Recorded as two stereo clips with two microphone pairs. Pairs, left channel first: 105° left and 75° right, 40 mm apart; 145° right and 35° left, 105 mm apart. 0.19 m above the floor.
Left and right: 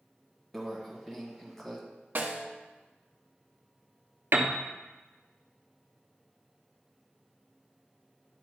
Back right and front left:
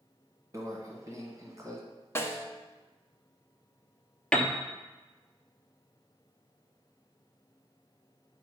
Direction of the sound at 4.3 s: 65° right.